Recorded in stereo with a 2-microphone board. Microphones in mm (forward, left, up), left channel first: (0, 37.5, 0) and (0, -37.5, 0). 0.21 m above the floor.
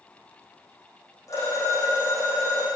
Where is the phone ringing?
45° left (ahead or behind), 6.5 m.